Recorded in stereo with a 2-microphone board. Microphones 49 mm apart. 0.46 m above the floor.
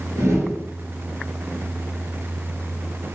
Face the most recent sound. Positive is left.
turn(degrees=-80)